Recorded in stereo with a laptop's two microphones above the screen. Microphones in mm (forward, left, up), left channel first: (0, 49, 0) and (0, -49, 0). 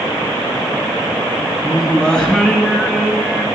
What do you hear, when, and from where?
1.6 s singing: 5° left (ahead or behind), 1.6 m